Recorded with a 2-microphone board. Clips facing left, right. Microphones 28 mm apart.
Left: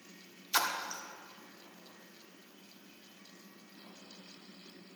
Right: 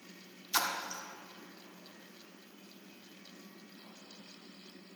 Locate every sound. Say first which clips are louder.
0.5 s a splash: left 1 dB; 15° left (ahead or behind), 1.0 m